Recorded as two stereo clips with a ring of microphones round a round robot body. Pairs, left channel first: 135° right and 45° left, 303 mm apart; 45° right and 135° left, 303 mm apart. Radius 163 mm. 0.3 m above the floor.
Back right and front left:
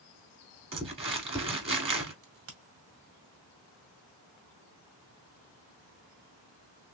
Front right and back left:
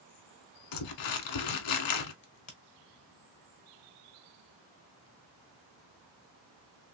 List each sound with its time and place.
0.7 s crumpling: 30° right, 1.0 m
2.2 s a crack: 15° left, 1.5 m